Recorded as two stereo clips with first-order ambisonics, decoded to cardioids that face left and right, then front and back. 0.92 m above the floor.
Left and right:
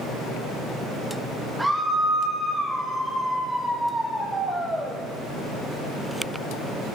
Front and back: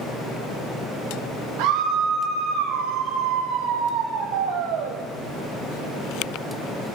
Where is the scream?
175° right, 0.6 m.